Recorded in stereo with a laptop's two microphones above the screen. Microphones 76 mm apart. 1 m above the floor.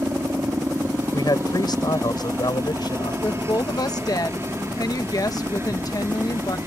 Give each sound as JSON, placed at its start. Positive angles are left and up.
{"t": 0.0, "sound": "a helicopter", "side_deg": -35}
{"t": 1.1, "sound": "a man speaking", "side_deg": 65}
{"t": 3.2, "sound": "a woman speaking", "side_deg": 50}